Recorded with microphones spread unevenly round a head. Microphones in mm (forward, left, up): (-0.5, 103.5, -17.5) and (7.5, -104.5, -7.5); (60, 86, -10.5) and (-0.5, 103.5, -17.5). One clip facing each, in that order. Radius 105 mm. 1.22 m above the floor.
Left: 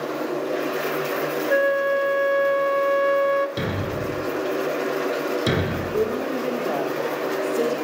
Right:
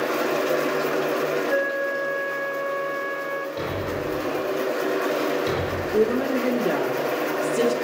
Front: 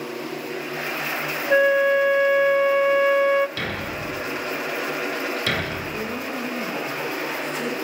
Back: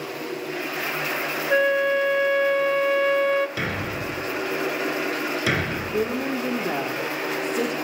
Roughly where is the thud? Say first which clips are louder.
Left 1 dB, back 1 dB; left.